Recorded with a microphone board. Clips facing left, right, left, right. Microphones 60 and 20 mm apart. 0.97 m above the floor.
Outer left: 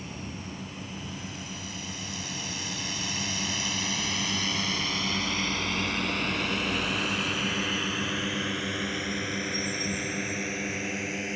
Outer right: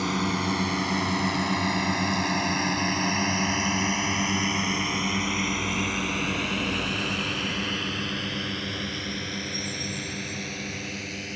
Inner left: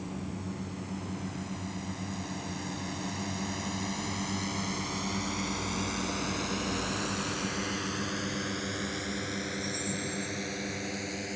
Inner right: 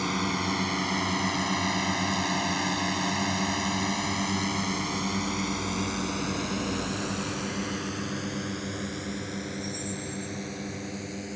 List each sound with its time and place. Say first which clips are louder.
0.0 s a drone: outer right 13 dB, inner right 11 dB; 80° right; by 11.4 s 20° left (ahead or behind)